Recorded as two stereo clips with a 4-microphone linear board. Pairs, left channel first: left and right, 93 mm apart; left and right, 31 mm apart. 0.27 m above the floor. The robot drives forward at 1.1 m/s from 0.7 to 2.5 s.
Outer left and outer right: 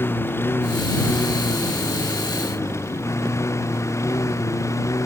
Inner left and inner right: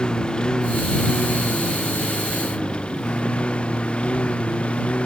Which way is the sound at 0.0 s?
25° left (ahead or behind).